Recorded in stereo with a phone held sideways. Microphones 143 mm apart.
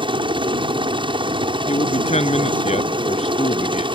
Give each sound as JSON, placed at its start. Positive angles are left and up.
{"t": 0.0, "sound": "a helicopter", "side_deg": -35}
{"t": 1.7, "sound": "a man speaking", "side_deg": 50}